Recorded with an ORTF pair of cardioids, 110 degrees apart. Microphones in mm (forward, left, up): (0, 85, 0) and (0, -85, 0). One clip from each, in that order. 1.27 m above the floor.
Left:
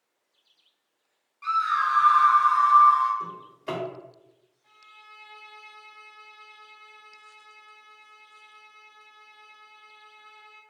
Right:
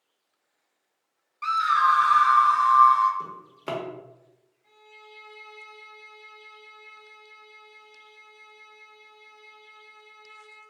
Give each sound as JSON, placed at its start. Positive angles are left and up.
{"t": 1.4, "sound": "a scream", "azimuth_deg": -40, "distance_m": 0.5}
{"t": 3.2, "sound": "a drawer", "azimuth_deg": -40, "distance_m": 0.9}
{"t": 4.6, "sound": "a violin", "azimuth_deg": 15, "distance_m": 0.7}